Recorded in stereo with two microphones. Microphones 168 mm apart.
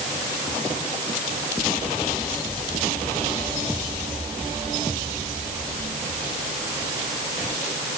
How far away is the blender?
No blender in this recording.